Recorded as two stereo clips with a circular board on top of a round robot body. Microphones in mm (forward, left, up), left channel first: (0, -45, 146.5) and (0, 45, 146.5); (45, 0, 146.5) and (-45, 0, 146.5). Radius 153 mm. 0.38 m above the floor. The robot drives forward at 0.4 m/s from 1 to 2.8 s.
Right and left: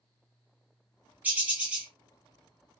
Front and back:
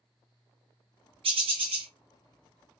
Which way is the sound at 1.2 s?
165° left.